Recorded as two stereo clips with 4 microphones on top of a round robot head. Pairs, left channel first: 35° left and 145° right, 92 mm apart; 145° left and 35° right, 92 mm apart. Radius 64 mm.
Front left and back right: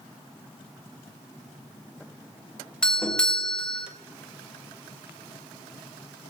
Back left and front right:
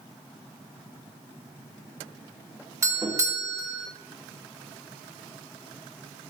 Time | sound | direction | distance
2.8 | a doorbell | 40° right | 1.4 m